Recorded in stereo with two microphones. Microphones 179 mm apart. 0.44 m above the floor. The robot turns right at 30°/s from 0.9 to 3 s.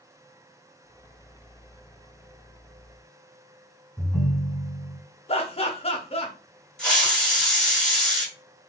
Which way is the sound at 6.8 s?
5° left (ahead or behind).